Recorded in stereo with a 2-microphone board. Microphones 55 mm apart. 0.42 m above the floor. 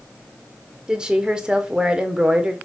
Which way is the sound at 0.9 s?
15° right (ahead or behind).